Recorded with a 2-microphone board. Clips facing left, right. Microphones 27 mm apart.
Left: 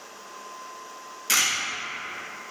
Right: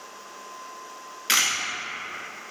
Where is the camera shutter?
40° right (ahead or behind), 0.9 m.